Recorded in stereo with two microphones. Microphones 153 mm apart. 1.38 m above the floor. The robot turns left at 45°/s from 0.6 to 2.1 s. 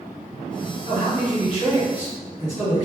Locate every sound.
0.9 s a man speaking: 35° left, 1.6 m; by 2.9 s 25° right, 1.6 m